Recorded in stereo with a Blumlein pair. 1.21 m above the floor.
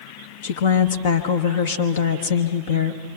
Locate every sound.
0.4 s a woman speaking: 55° left, 1.1 m